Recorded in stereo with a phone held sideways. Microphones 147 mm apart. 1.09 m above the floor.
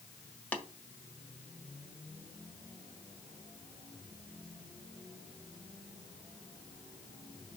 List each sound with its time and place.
0.5 s tapping: 10° left (ahead or behind), 1.4 m